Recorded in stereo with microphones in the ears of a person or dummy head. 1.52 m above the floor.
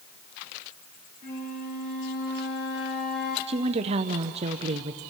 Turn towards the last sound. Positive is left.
turn(degrees=-35)  # may be behind; listen again after turning